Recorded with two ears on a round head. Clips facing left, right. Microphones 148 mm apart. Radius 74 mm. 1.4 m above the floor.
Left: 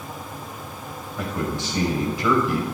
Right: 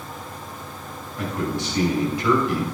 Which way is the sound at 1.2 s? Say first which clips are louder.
Right 1 dB; 80° left.